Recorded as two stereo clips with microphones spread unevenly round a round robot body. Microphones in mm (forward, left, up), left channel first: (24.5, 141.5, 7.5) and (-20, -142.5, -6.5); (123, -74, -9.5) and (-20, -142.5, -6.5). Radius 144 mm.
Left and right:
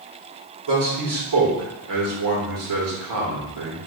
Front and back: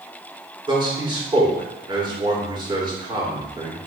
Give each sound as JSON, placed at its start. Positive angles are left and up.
{"t": 0.7, "sound": "a man speaking", "azimuth_deg": -95, "distance_m": 3.0}